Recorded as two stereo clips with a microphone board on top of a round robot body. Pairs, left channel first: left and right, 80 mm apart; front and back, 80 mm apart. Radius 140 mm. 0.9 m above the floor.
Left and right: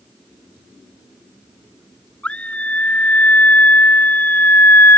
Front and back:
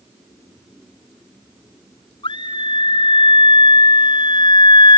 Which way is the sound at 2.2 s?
15° left.